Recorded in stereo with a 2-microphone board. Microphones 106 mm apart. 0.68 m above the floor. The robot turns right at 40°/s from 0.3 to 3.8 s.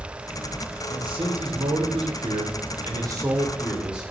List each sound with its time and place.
0.9 s a man speaking: 125° right, 2.5 m; by 4.1 s 10° right, 2.5 m